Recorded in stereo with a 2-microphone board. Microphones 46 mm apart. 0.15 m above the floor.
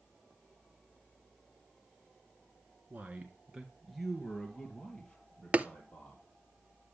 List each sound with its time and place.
2.9 s a man speaking: 35° right (ahead or behind), 1.6 m; by 6.2 s 25° left (ahead or behind), 4 m
5.5 s tapping: 30° right (ahead or behind), 0.5 m